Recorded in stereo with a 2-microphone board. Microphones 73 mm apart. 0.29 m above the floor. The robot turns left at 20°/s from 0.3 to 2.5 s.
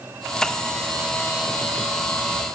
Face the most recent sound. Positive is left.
No sound to turn to.